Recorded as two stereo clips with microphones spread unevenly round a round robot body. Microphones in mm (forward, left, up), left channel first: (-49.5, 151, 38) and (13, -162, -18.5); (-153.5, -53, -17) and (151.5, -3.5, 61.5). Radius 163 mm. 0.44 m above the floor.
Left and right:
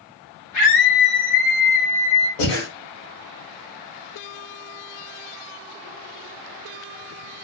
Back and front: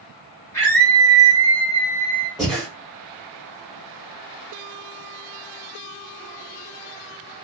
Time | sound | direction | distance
0.5 | a scream | 125° left | 1.7 m
2.4 | breathing | 100° left | 1.5 m